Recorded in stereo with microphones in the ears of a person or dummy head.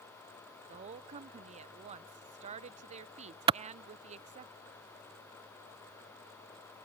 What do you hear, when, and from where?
0.7 s a woman speaking: 45° right (ahead or behind)
3.5 s a clap: 35° right (ahead or behind)